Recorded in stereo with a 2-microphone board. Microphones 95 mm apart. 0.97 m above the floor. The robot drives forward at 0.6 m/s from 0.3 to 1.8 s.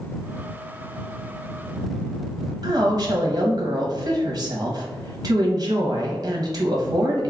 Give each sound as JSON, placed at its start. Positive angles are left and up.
{"t": 2.6, "sound": "a woman speaking", "side_deg": -40, "distance_m": 0.8}